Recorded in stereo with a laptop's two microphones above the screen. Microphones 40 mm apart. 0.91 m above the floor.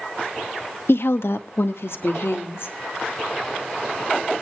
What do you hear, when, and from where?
0.9 s a woman speaking: 70° left (ahead or behind), 0.7 m; by 2.7 s 80° left, 2.5 m